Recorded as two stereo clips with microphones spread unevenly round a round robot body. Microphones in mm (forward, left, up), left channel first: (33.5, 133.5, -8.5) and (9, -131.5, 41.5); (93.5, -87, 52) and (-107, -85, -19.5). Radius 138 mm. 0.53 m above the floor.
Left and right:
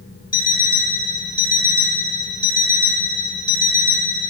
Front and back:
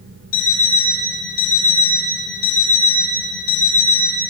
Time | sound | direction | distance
0.3 | an alarm clock | 25° left | 1.3 m